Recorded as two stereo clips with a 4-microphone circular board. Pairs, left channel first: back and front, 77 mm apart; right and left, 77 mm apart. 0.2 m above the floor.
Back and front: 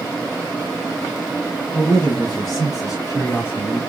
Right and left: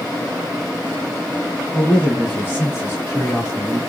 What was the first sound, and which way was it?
A man speaking, straight behind.